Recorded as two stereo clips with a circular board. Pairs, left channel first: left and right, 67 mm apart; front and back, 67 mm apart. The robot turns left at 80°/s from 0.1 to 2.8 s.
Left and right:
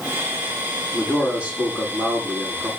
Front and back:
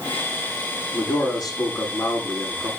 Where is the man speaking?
20° left, 8.5 m; by 2.7 s 120° right, 8.5 m.